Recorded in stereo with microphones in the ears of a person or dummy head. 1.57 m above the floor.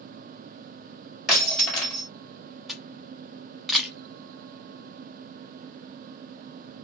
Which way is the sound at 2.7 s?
Centre (ahead or behind).